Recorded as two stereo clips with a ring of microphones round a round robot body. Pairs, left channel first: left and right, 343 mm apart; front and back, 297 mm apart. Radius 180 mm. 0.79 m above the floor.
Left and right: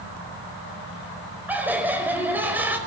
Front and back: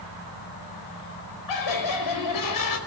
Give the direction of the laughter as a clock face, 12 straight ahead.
12 o'clock.